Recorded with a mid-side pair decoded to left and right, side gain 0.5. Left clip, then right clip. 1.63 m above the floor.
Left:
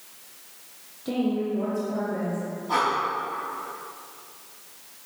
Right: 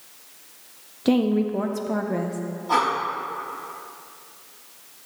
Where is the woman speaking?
65° right, 0.9 m.